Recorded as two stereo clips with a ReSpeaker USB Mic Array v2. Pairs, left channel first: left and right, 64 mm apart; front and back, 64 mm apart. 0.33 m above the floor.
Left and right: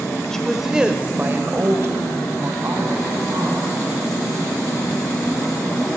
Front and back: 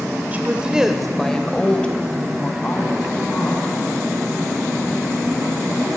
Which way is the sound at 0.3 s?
160° left.